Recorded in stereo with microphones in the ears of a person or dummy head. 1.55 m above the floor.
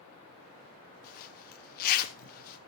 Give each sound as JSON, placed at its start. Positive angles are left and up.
{"t": 1.0, "sound": "a zipper", "side_deg": 50, "distance_m": 1.1}